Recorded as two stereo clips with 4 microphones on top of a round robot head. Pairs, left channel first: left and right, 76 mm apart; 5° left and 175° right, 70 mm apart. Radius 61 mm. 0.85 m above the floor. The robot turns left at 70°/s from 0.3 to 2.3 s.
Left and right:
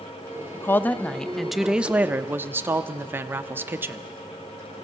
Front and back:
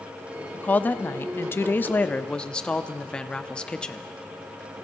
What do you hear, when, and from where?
0.5 s a woman speaking: 65° left, 0.6 m; by 4.1 s 60° right, 0.6 m